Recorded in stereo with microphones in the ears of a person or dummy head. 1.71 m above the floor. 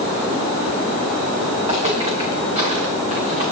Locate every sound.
1.6 s footsteps: 30° right (ahead or behind), 6.5 m; by 3.4 s 40° right (ahead or behind), 7.5 m